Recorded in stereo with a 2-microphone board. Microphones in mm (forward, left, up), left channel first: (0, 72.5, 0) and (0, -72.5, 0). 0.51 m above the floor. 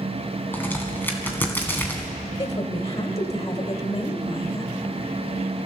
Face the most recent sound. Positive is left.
turn(degrees=40)  # may be behind; listen again after turning